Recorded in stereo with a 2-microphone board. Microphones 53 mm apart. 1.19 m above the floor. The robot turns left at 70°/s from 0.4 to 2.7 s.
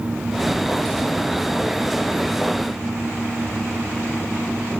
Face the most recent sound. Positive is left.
No sound to turn to.